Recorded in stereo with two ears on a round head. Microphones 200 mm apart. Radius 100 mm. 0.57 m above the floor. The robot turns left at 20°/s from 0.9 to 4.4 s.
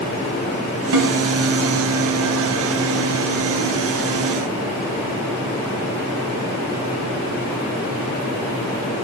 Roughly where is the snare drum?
Right.